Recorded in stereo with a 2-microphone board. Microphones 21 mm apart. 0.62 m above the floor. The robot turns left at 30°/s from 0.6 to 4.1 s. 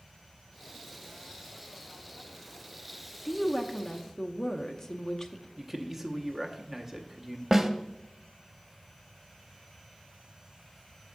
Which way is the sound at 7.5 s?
15° right (ahead or behind).